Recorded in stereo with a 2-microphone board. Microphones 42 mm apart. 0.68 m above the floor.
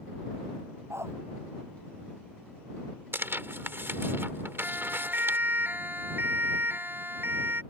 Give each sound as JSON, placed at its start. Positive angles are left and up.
{"t": 0.9, "sound": "a dog barking", "side_deg": -80}
{"t": 3.1, "sound": "tearing paper", "side_deg": -60}
{"t": 4.6, "sound": "a siren", "side_deg": -45}